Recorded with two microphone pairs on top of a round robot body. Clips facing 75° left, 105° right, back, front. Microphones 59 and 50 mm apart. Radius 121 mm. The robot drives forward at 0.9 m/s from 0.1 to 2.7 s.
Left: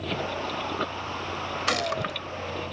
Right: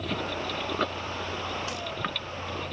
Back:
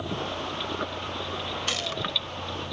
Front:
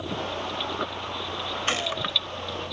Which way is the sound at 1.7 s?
50° left.